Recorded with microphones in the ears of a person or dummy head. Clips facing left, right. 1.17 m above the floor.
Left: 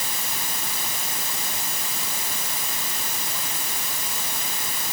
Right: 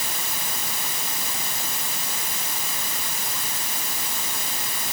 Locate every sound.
Only background noise.